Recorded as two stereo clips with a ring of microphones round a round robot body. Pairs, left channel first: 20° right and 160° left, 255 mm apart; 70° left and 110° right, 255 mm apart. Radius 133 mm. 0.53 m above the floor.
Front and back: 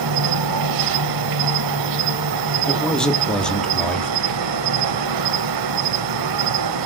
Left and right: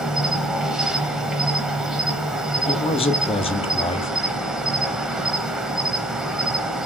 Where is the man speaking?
60° left, 0.6 m.